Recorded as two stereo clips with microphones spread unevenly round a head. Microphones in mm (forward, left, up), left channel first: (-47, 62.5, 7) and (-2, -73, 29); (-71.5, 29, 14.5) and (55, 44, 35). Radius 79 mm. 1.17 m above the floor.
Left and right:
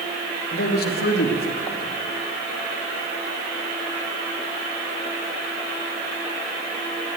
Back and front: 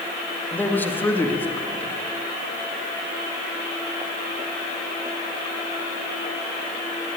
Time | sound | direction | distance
0.5 | a man speaking | 110° left | 2 m